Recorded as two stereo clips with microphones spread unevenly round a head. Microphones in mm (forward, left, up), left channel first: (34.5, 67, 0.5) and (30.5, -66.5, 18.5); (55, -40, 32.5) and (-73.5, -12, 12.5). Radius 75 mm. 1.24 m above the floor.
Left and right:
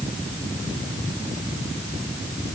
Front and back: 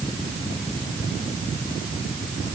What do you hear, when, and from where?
Only background noise.